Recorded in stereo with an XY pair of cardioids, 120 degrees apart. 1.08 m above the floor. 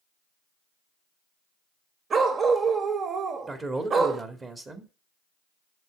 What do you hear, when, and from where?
2.1 s a dog barking: 40° right, 1.8 m
3.5 s a man speaking: 30° right, 2.5 m